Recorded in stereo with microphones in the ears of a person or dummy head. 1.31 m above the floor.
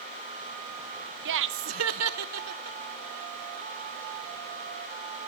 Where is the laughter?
60° right (ahead or behind), 0.5 m; by 2.8 s 85° right, 1.3 m.